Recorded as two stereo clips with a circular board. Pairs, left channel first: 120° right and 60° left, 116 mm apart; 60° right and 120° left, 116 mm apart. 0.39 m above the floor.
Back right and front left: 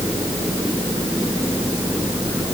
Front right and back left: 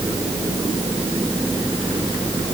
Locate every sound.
Only background noise.